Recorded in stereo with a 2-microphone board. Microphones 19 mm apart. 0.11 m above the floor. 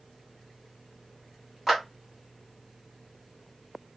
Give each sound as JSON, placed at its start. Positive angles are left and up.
{"t": 1.7, "sound": "a clap", "side_deg": -15, "distance_m": 1.7}